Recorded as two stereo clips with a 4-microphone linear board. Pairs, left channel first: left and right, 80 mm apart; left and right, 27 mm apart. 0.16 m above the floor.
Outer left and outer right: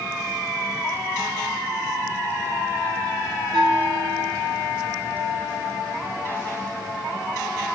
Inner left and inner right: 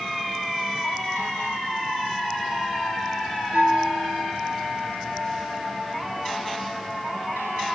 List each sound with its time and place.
3.5 s a bell: 50° right (ahead or behind), 3.5 m